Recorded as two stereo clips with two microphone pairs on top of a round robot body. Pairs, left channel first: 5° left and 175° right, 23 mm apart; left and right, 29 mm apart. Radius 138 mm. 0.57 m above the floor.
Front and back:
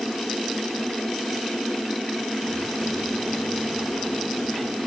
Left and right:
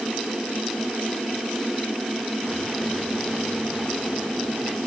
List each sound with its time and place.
Only background noise.